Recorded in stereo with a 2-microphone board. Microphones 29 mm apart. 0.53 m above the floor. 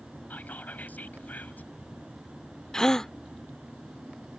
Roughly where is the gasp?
Left.